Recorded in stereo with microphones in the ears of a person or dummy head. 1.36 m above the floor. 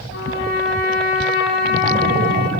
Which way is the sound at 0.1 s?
65° left (ahead or behind).